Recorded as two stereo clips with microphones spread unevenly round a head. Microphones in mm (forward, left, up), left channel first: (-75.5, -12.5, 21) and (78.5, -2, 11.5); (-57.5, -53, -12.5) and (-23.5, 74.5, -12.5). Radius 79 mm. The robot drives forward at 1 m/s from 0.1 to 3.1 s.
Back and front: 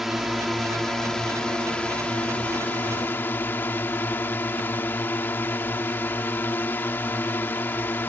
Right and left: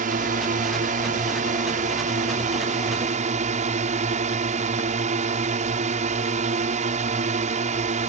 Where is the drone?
90° left; by 8.1 s 105° left.